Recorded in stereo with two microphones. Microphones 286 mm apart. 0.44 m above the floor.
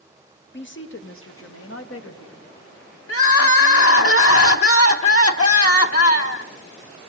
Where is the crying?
50° left (ahead or behind), 1.3 m.